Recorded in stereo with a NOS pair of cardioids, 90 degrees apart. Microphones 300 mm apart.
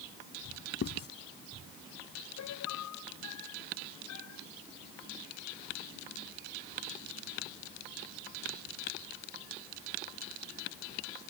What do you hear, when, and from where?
0.8 s writing: 50° left
2.4 s a piano: 65° left